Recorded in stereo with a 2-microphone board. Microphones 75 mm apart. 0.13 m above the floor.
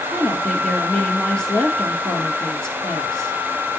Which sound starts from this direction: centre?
A woman speaking, at 0.1 s.